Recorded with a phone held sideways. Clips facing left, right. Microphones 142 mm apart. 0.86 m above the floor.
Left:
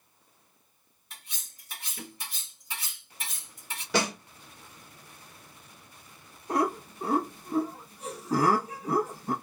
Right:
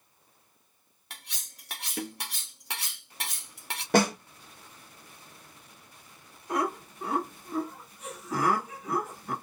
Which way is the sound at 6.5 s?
35° left (ahead or behind).